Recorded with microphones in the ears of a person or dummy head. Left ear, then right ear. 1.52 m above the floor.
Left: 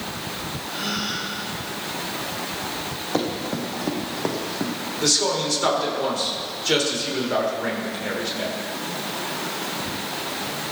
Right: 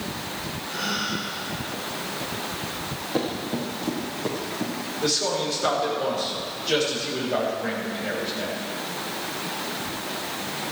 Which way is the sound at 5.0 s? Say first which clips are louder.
Left 3 dB; 85° left.